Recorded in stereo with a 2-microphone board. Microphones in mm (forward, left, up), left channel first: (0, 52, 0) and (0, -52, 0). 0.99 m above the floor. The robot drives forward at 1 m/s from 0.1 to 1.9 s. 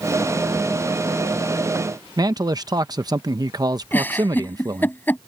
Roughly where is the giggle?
Centre.